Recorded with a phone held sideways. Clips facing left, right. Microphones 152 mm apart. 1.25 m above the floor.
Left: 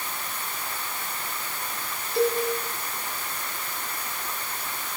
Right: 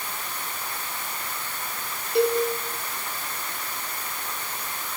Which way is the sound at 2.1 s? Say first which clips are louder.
Right 2 dB; 70° right (ahead or behind).